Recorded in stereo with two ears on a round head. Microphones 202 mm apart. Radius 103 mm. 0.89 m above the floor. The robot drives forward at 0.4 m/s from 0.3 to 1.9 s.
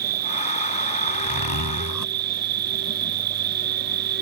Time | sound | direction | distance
0.0 | an insect | 40° right (ahead or behind) | ?
1.1 | a zipper | 75° left (ahead or behind) | ?